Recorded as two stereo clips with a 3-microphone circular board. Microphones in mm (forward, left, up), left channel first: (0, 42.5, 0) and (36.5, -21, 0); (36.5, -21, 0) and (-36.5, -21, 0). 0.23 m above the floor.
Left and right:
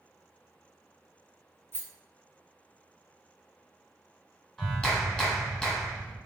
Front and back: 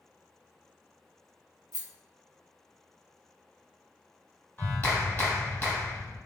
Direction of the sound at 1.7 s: 175° left.